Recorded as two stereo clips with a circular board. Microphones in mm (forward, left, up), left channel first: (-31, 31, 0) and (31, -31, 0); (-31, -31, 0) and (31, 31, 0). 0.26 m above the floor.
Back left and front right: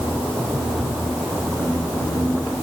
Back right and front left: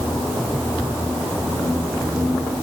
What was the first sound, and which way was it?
Only background noise.